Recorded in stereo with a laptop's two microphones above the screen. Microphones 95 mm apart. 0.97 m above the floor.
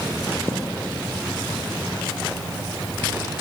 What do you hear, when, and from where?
0.5 s a thud: 60° right (ahead or behind), 3 m